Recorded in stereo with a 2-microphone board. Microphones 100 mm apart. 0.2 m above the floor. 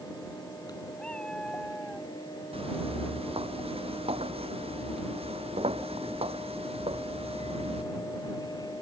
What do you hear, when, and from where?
1.0 s a cat meowing: 10° left (ahead or behind); by 2.1 s centre (ahead or behind)
2.5 s footsteps: 75° right (ahead or behind); by 7.8 s 85° right